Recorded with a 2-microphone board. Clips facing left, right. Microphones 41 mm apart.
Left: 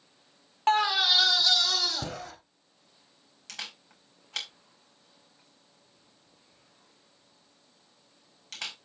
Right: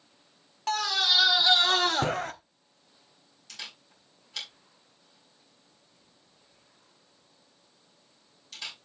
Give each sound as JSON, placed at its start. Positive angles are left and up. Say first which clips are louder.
{"t": 0.7, "sound": "a scream", "louder": "left 3 dB", "side_deg": 35, "distance_m": 0.6}
{"t": 3.5, "sound": "a camera shutter", "louder": "left 2 dB", "side_deg": 75, "distance_m": 4.5}